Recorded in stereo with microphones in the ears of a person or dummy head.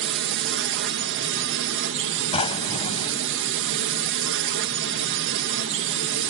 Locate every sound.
0.0 s a drone: 65° right (ahead or behind)
2.3 s a drawer: 25° left (ahead or behind)